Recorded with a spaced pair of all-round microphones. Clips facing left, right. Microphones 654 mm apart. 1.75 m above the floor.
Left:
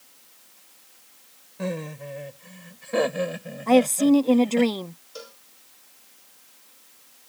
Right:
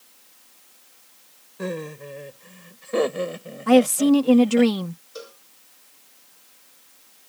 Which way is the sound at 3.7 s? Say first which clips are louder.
Right 2 dB; 45° right (ahead or behind).